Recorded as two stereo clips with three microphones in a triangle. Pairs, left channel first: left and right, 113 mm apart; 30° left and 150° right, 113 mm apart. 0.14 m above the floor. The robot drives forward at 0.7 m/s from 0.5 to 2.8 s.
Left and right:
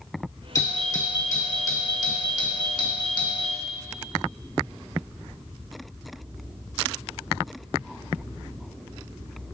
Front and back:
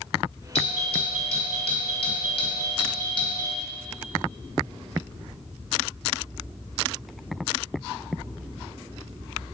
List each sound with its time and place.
0.6 s a doorbell: 35° left, 3.5 m; by 3.6 s 60° left, 2.5 m